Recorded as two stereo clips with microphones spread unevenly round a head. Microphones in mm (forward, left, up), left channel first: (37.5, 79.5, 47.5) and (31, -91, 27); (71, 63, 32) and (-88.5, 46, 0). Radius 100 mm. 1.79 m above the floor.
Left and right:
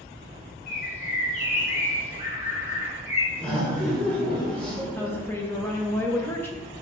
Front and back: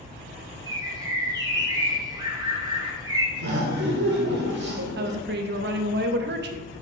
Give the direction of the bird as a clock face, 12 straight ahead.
8 o'clock.